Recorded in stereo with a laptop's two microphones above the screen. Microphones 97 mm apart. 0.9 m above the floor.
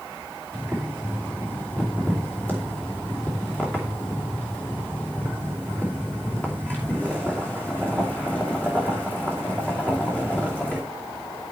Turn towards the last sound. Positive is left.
turn(degrees=15)  # may be behind; listen again after turning